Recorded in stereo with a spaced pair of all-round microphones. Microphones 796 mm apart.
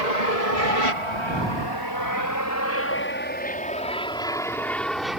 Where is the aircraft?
55° left (ahead or behind); by 5.2 s centre (ahead or behind).